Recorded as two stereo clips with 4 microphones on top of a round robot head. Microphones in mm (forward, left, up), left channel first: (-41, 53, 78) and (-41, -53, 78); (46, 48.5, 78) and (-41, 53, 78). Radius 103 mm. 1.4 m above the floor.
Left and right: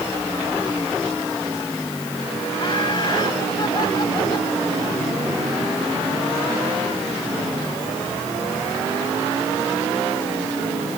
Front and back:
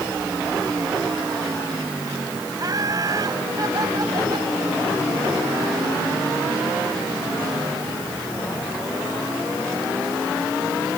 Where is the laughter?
130° left; by 4.5 s 140° left.